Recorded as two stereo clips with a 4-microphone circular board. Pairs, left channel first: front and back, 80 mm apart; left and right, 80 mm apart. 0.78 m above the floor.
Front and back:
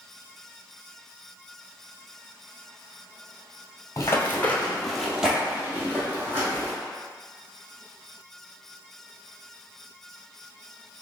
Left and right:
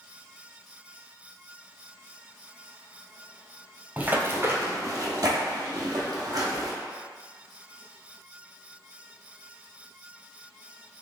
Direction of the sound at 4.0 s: 30° right.